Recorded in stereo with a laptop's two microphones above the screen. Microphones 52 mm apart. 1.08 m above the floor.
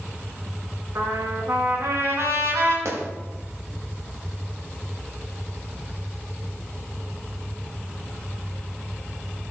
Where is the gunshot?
65° right (ahead or behind), 1.5 m.